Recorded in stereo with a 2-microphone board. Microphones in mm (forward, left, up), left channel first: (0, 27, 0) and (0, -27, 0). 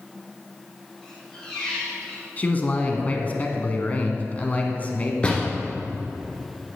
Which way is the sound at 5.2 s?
20° left (ahead or behind).